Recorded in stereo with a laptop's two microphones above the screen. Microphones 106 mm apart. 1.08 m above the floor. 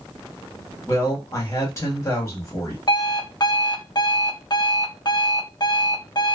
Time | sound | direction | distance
0.9 | a woman speaking | 25° left (ahead or behind) | 1.4 m
2.9 | an alarm clock | 40° left (ahead or behind) | 0.6 m